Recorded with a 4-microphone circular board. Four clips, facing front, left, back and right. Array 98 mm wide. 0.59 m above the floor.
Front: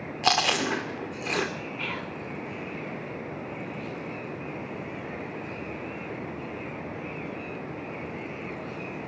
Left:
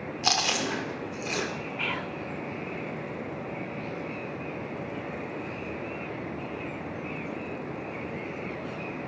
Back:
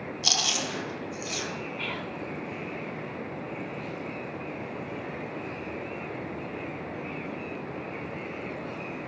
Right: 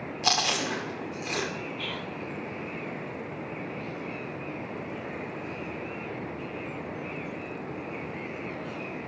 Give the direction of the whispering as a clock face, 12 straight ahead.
9 o'clock.